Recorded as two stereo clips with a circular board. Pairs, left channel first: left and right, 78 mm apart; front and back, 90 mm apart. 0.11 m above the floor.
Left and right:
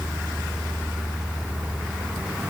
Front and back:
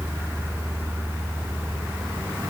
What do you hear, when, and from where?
Only background noise.